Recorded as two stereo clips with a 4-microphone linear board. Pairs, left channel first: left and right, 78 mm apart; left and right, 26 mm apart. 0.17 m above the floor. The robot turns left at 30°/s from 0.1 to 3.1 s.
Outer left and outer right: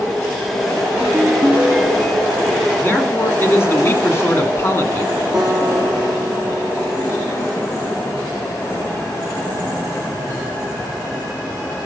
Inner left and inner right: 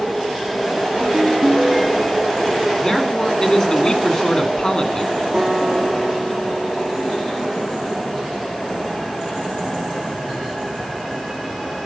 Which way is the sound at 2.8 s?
30° left (ahead or behind).